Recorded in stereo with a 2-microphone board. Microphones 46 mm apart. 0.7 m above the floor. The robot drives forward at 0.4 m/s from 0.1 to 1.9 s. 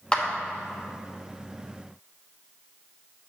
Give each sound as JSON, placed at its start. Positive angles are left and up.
{"t": 0.1, "sound": "a clap", "side_deg": 20, "distance_m": 1.0}